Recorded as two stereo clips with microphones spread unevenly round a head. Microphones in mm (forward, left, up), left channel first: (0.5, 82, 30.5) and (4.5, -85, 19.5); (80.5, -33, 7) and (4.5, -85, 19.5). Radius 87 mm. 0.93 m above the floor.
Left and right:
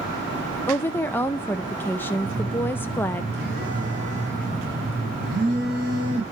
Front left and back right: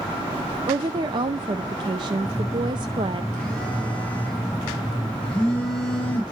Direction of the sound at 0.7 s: 170° left.